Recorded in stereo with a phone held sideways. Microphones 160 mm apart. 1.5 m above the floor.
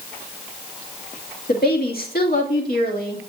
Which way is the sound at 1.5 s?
70° left (ahead or behind).